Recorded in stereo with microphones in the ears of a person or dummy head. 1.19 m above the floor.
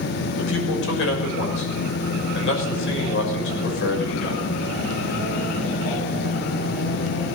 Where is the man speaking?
70° left (ahead or behind), 6.5 m.